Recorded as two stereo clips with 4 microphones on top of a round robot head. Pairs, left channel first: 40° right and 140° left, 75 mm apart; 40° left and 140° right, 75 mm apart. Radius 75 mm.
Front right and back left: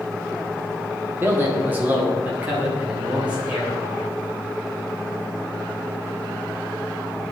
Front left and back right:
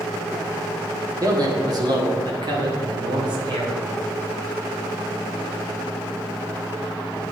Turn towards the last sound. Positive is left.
turn(degrees=-145)